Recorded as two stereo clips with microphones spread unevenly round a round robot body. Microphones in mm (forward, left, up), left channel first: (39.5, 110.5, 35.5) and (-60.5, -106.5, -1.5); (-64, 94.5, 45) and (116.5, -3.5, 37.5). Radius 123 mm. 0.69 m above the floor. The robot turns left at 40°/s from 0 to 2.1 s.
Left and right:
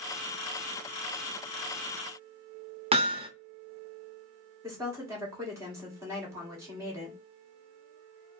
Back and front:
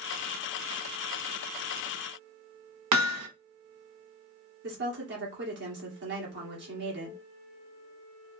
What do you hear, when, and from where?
2.9 s hammering: 45° right, 0.5 m
4.6 s a woman speaking: 45° right, 1.8 m